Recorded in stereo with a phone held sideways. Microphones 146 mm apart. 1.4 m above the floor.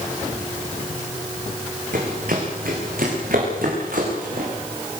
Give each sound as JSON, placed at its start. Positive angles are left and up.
{"t": 1.9, "sound": "running footsteps", "side_deg": -70, "distance_m": 5.5}